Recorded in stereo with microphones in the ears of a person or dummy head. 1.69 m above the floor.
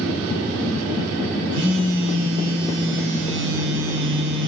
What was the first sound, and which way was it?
A phone buzzing, 70° right (ahead or behind).